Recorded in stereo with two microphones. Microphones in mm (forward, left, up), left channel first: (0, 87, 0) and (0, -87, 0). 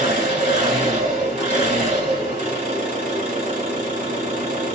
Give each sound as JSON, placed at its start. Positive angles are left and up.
{"t": 0.0, "sound": "an engine running", "side_deg": -50, "distance_m": 1.4}